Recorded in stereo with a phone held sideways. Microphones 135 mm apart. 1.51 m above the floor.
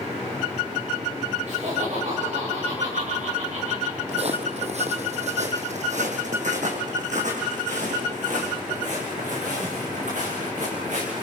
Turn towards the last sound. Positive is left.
turn(degrees=-65)  # may be behind; listen again after turning